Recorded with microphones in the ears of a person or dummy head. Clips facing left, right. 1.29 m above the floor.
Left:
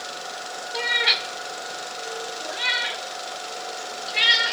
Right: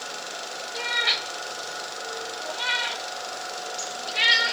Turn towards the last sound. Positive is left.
turn(degrees=20)  # may be behind; listen again after turning